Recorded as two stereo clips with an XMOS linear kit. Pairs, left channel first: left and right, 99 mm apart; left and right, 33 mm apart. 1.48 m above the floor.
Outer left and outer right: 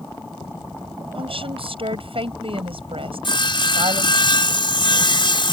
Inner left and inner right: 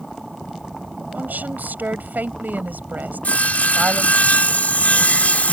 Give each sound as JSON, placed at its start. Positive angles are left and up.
{"t": 1.1, "sound": "a woman speaking", "side_deg": -80}
{"t": 3.2, "sound": "sawing", "side_deg": 60}